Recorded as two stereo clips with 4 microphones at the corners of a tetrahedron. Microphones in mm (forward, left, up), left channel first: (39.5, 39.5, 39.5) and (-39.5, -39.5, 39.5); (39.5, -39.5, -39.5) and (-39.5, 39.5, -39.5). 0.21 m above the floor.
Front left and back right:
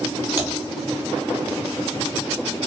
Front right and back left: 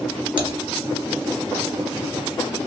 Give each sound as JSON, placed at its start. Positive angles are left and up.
{"t": 0.4, "sound": "typing on a keyboard", "azimuth_deg": 160, "distance_m": 1.7}